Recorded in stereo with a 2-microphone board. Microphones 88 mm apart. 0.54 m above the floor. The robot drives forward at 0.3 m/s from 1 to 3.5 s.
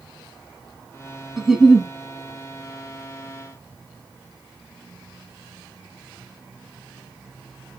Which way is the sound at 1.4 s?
5° right (ahead or behind).